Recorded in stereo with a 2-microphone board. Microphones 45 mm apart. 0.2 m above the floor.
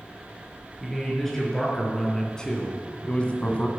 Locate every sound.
0.8 s a man speaking: 5° left (ahead or behind), 4 m; by 3.7 s 30° left (ahead or behind), 1.7 m